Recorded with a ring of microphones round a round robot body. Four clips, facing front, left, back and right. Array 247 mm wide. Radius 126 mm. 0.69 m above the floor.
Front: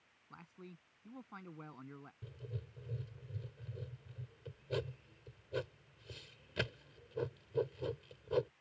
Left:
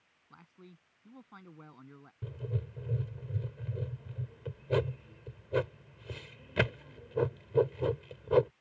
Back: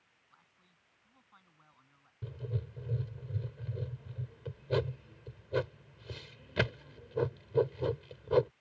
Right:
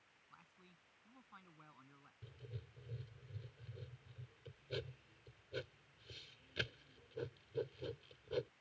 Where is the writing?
120° left.